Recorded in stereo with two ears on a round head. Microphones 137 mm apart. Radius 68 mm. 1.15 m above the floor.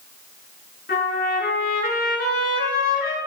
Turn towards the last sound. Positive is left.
turn(degrees=65)  # may be behind; listen again after turning